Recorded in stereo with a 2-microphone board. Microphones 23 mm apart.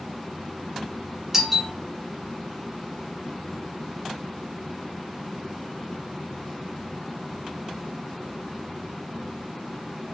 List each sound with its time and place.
1.3 s a doorbell: 15° right (ahead or behind), 1.6 m